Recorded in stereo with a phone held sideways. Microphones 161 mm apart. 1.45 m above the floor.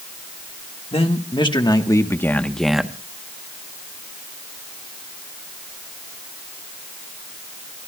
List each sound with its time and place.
0.9 s a man speaking: 35° left (ahead or behind), 1.6 m; by 3.0 s 10° right (ahead or behind), 1.0 m